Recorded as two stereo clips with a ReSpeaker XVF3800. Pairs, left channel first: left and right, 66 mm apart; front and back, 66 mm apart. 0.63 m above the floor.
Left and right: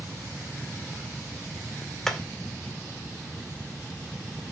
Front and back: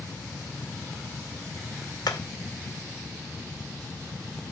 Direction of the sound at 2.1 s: 10° left.